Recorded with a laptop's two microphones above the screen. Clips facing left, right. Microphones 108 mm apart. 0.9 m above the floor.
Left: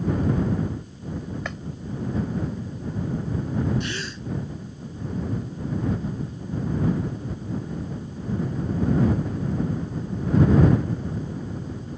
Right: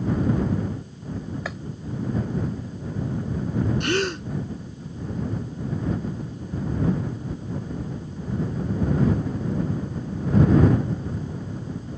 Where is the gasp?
65° right (ahead or behind).